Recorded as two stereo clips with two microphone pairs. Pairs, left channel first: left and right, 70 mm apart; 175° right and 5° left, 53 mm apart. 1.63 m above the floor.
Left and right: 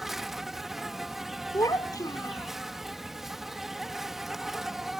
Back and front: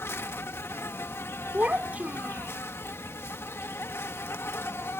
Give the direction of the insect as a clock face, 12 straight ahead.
6 o'clock.